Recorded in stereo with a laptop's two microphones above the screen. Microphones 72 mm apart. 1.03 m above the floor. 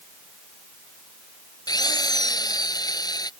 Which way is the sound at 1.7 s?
65° left (ahead or behind).